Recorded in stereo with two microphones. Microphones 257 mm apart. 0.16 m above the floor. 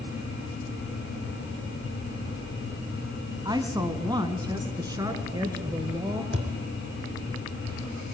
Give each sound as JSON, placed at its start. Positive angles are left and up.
{"t": 3.5, "sound": "a woman speaking", "side_deg": -15, "distance_m": 1.7}
{"t": 6.3, "sound": "a thud", "side_deg": -45, "distance_m": 3.0}